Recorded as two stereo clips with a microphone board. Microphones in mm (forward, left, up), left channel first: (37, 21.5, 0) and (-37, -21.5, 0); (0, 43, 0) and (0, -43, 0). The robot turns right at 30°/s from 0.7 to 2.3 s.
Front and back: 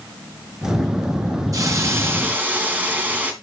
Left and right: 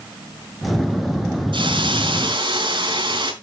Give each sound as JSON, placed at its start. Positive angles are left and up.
{"t": 1.5, "sound": "a hiss", "azimuth_deg": -100, "distance_m": 3.0}